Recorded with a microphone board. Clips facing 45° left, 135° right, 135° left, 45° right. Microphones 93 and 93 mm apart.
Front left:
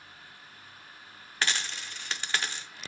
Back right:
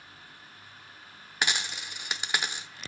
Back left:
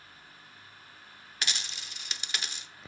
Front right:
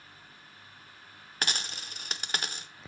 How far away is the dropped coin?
About 0.6 m.